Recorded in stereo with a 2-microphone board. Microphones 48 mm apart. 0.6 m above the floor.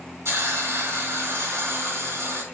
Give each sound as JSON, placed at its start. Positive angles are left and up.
{"t": 0.2, "sound": "a hiss", "side_deg": -65, "distance_m": 3.0}